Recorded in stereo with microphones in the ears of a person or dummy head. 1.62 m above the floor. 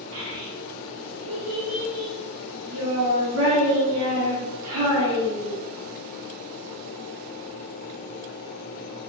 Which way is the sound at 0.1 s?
55° right (ahead or behind).